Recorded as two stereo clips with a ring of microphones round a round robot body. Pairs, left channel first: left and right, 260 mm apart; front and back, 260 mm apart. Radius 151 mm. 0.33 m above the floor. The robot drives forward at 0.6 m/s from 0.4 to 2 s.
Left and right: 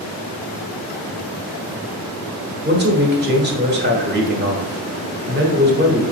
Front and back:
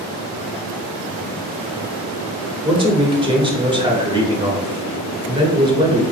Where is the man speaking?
115° right, 1.3 m.